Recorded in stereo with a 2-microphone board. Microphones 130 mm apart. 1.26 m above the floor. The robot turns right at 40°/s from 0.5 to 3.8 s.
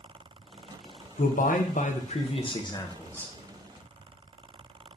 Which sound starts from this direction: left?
A man speaking, at 1.2 s.